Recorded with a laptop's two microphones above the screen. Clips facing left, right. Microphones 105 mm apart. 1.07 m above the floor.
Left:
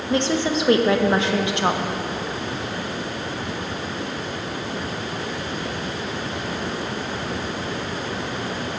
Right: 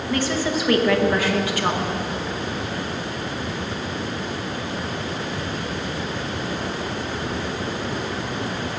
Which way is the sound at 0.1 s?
25° left (ahead or behind).